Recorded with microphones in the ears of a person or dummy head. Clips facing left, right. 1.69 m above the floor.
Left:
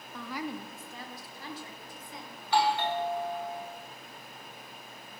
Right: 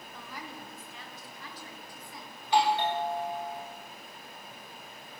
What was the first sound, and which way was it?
A woman speaking, 75° left (ahead or behind).